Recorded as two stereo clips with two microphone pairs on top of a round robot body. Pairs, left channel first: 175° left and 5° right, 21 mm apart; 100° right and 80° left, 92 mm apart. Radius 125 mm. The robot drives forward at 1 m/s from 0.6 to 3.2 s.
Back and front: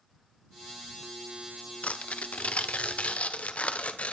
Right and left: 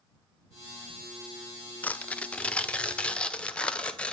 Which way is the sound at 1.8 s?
175° right.